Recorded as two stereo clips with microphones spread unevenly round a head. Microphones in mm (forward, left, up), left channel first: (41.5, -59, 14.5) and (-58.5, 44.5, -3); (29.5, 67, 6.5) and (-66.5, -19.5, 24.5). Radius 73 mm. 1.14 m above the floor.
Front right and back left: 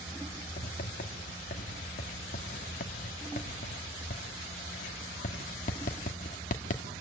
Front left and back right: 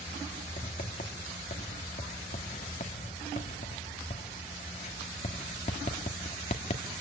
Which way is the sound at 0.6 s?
5° right.